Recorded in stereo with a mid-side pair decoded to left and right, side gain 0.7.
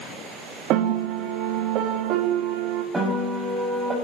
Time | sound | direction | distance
0.7 | a piano | 60° right | 2.5 m
2.9 | a piano | 20° right | 7 m